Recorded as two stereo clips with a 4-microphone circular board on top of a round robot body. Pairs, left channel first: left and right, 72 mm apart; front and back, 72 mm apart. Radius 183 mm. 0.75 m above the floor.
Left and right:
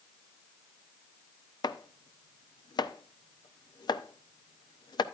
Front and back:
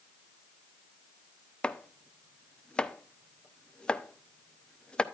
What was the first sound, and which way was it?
Chopping, 80° left.